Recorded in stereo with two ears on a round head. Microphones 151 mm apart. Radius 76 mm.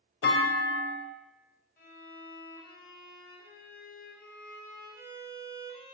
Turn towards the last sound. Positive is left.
turn(degrees=55)  # may be behind; listen again after turning